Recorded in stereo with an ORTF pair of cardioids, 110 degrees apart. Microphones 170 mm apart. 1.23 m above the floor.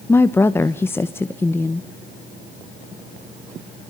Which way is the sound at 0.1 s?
15° left.